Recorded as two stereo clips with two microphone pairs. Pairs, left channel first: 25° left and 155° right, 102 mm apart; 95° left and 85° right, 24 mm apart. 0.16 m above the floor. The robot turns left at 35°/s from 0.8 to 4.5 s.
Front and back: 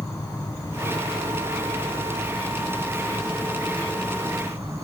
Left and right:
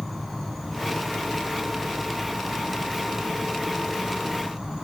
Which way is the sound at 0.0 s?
10° left.